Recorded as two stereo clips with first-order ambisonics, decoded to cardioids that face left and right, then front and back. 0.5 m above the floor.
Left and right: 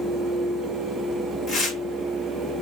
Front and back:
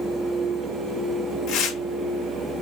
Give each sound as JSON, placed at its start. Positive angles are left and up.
{"t": 1.5, "sound": "tearing paper", "azimuth_deg": 25, "distance_m": 1.3}